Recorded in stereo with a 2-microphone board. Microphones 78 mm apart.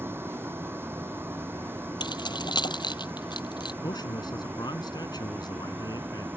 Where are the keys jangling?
75° left (ahead or behind).